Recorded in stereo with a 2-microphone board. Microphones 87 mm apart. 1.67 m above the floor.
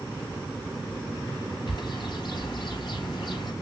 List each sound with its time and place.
1.7 s a bird: 55° left (ahead or behind), 3.5 m